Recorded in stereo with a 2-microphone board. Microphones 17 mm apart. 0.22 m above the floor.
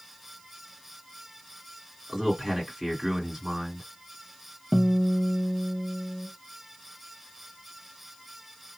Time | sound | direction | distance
2.1 | a man speaking | 15° right (ahead or behind) | 2 m
4.7 | a guitar | centre (ahead or behind) | 0.6 m